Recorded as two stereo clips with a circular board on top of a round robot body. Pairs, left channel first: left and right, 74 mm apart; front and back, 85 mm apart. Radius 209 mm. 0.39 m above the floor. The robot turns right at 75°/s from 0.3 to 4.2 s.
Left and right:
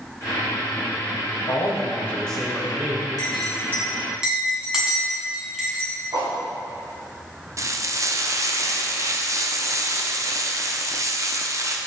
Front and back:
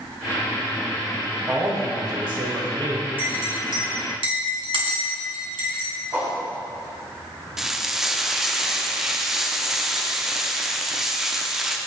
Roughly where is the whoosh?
Behind right.